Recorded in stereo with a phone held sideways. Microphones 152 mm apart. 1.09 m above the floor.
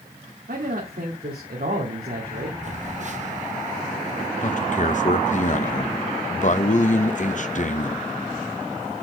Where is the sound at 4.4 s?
55° left (ahead or behind), 0.9 m.